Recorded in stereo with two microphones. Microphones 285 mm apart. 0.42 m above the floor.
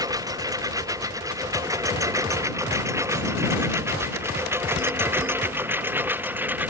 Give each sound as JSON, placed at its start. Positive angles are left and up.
{"t": 0.0, "sound": "a lawn mower", "side_deg": -15}